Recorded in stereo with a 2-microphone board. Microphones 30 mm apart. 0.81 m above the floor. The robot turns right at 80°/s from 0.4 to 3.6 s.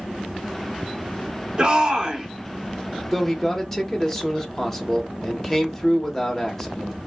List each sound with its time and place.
1.6 s a shout: 30° right (ahead or behind), 0.5 m; by 2.3 s 15° right (ahead or behind), 0.5 m
3.1 s a man speaking: 5° right (ahead or behind), 0.7 m; by 7.0 s 10° left (ahead or behind), 0.7 m